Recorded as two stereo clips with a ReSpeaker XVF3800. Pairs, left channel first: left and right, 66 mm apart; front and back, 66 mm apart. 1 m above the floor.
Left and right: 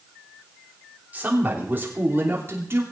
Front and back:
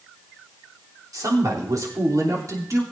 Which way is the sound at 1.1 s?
155° right.